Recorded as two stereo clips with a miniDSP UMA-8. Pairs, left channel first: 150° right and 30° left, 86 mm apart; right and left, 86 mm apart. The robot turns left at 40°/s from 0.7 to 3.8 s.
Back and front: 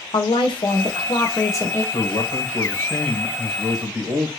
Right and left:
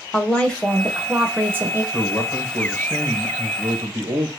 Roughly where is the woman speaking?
Behind.